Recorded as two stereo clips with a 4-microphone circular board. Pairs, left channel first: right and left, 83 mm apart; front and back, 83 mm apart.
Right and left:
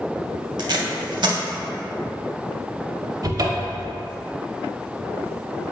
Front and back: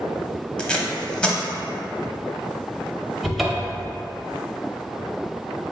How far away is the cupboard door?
About 0.5 m.